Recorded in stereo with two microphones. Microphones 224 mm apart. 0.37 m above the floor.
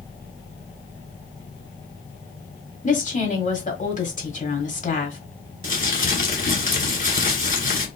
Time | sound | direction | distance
2.8 | a woman speaking | 35° left (ahead or behind) | 1.6 m
5.6 | crumpling | 40° left (ahead or behind) | 1.8 m